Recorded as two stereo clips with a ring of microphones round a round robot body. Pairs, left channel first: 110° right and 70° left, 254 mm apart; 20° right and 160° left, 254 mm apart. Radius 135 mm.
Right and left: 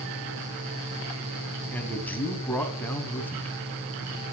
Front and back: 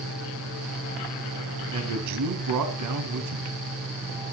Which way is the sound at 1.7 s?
165° left.